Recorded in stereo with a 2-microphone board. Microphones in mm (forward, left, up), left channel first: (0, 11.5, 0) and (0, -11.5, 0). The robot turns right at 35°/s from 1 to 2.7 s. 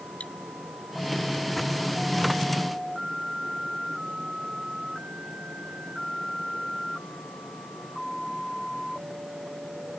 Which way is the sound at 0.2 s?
70° left (ahead or behind).